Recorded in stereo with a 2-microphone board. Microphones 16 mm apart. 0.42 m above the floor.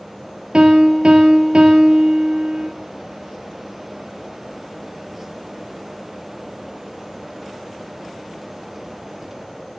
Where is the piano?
80° right, 1.6 m.